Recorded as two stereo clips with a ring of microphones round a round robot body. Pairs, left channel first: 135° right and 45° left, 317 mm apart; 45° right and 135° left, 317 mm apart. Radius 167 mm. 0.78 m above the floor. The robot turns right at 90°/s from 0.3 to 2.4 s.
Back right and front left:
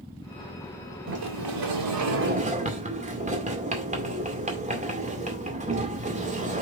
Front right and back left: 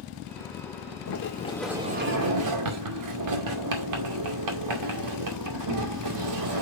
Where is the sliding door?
5° right, 2 m; by 6.6 s 110° left, 2 m.